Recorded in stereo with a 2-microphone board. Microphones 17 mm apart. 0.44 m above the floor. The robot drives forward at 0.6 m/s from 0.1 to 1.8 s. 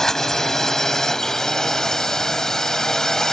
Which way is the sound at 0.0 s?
25° left (ahead or behind).